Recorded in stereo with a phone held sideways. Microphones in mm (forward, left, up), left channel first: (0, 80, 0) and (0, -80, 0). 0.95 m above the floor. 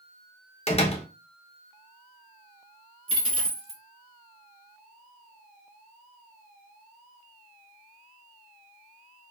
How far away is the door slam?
About 0.5 m.